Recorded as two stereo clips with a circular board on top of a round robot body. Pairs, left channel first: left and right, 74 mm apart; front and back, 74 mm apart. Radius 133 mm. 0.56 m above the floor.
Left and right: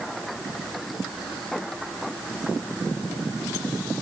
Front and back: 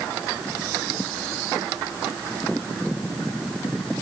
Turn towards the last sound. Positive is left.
No sound to turn to.